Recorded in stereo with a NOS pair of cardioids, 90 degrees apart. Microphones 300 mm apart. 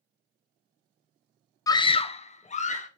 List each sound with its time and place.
1.7 s a scream: 10° left, 0.5 m; by 2.9 s 25° left, 2 m